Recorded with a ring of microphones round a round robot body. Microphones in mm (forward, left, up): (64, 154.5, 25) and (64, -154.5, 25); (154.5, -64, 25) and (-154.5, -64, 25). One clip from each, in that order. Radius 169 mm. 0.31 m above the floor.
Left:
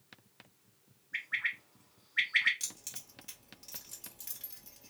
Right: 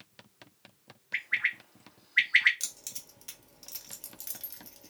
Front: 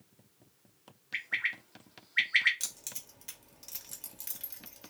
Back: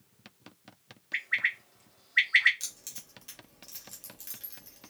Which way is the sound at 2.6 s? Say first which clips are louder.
Right 3 dB, front 1 dB; 50° right.